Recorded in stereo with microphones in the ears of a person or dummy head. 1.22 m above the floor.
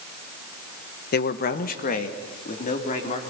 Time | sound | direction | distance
1.1 | a man speaking | 45° left (ahead or behind) | 1.1 m